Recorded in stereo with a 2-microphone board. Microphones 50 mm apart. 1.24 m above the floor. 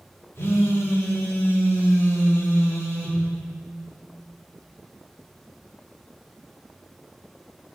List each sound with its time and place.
0.3 s a phone buzzing: 70° left (ahead or behind), 2 m